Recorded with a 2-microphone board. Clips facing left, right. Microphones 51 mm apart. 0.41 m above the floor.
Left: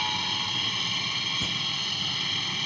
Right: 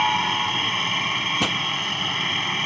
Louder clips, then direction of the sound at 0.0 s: Right 9 dB; 40° right (ahead or behind).